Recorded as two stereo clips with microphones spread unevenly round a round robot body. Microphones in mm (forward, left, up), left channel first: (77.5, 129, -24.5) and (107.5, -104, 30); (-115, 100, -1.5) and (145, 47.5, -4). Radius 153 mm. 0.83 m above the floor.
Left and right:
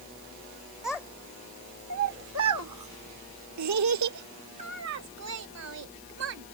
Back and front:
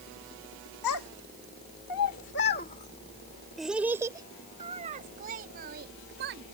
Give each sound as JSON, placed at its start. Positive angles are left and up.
{"t": 0.8, "sound": "a child speaking", "azimuth_deg": -175}